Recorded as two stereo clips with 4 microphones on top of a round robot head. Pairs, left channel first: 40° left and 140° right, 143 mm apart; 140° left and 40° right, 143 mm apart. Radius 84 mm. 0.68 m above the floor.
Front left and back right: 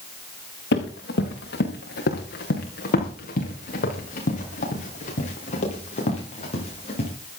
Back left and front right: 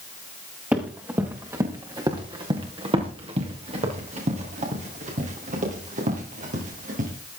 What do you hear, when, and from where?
0.7 s running footsteps: 40° left, 4.5 m; by 7.1 s 5° right, 9.5 m